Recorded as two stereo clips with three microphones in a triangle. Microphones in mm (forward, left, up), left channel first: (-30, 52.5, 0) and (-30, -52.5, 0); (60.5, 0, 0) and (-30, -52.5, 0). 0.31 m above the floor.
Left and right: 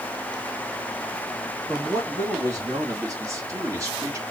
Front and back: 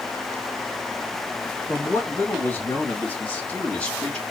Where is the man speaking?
35° right, 2.5 m; by 4.2 s 50° right, 1.5 m.